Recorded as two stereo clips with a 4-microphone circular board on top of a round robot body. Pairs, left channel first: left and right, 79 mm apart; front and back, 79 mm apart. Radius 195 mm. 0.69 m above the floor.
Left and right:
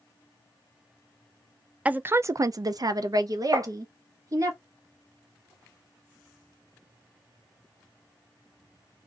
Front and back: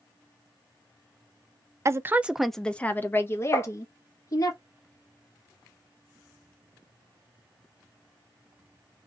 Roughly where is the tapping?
Ahead right.